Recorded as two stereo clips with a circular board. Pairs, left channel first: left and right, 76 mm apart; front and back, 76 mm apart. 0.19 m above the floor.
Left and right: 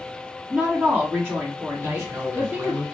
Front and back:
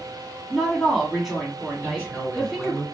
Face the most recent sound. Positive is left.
turn(degrees=-125)